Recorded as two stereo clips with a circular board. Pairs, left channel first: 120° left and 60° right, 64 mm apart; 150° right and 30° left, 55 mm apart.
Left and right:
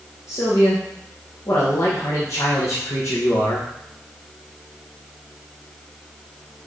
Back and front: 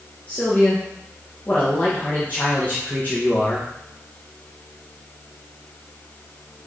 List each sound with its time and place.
0.3 s a man speaking: 150° left, 2 m